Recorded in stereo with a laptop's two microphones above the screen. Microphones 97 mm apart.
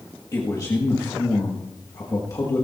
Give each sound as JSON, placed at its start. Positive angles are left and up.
{"t": 0.3, "sound": "a man speaking", "side_deg": 40, "distance_m": 1.7}